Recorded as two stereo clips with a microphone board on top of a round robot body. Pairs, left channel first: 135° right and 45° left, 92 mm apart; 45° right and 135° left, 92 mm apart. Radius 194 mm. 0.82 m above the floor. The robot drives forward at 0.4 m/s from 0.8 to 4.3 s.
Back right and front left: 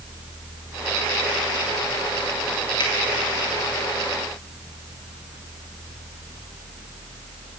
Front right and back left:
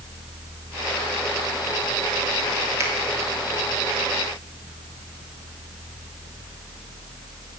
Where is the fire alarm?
I don't hear a fire alarm.